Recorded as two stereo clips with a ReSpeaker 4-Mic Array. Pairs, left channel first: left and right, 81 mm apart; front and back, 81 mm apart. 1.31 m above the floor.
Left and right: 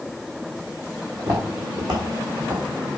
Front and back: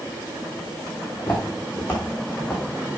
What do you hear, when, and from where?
1.2 s footsteps: 75° right, 4 m; by 3.0 s 60° right, 4 m